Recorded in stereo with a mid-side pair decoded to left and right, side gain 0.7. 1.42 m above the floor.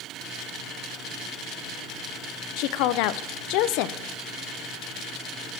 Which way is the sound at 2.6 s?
70° left.